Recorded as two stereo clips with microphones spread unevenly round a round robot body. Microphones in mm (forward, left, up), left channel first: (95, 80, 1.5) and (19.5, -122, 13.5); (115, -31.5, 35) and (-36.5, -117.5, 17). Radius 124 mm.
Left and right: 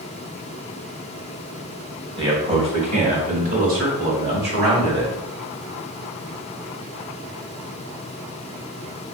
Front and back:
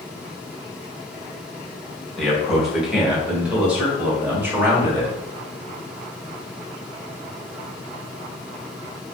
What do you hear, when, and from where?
2.2 s a man speaking: 70° right, 1.4 m; by 5.2 s 75° right, 2.5 m